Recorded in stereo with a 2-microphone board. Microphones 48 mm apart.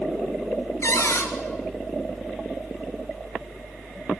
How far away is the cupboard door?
About 2.0 m.